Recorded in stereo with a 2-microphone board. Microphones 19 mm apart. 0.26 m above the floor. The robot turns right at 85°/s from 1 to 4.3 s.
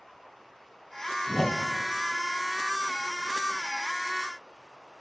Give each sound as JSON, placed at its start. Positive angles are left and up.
{"t": 1.3, "sound": "a whoosh", "azimuth_deg": 165, "distance_m": 1.1}